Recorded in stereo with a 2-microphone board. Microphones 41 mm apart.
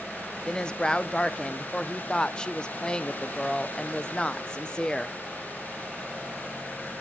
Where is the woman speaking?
20° left (ahead or behind), 0.5 m.